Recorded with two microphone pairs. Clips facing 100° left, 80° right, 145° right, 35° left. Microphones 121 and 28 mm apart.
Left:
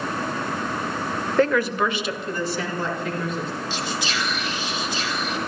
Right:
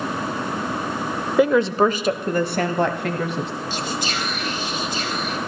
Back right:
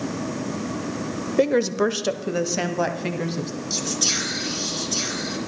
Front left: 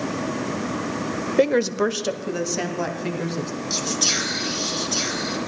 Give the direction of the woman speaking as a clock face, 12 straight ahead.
12 o'clock.